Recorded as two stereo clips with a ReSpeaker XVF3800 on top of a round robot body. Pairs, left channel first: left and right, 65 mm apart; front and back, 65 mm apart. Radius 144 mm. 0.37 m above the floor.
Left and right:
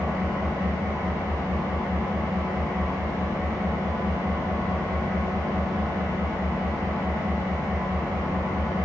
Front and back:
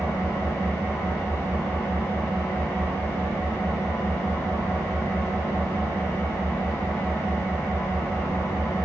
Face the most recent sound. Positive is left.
turn(degrees=-50)